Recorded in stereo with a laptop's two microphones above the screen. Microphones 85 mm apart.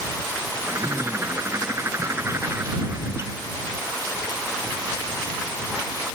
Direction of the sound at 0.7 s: 30° right (ahead or behind).